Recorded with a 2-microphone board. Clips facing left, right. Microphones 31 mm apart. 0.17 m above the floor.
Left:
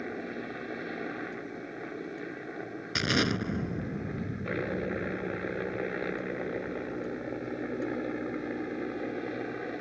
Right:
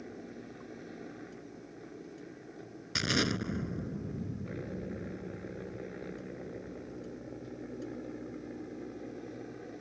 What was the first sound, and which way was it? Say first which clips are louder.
A helicopter: left 9 dB; 55° left (ahead or behind).